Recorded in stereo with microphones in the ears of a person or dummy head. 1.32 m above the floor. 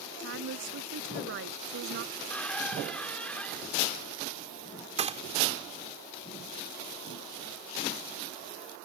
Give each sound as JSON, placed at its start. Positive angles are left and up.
{"t": 0.2, "sound": "a woman speaking", "side_deg": -65}
{"t": 2.1, "sound": "a squeak", "side_deg": 10}
{"t": 5.0, "sound": "a gunshot", "side_deg": -30}